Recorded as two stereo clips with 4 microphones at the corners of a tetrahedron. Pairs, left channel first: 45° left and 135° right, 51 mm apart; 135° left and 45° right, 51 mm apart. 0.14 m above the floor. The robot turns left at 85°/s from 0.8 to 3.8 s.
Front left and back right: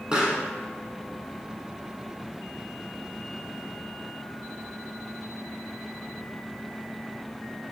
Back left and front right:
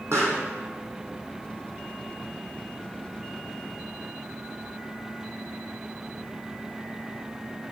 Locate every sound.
0.1 s a pop: 70° right, 1.1 m